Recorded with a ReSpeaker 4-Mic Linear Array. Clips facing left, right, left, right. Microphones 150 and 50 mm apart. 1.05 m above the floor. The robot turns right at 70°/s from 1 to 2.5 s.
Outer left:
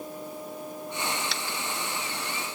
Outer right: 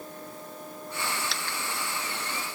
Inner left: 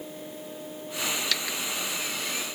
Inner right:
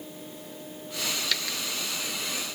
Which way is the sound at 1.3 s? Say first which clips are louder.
Outer left 1 dB, inner left 1 dB; centre (ahead or behind).